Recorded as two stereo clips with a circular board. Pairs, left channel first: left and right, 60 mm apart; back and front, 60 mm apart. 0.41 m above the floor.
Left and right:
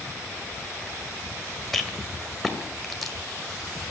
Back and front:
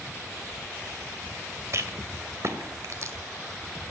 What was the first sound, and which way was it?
A rattle, 5° left.